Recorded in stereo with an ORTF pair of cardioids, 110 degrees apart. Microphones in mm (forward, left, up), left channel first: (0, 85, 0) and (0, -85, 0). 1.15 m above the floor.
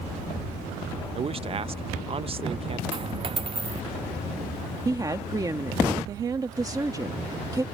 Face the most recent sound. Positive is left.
turn(degrees=-20)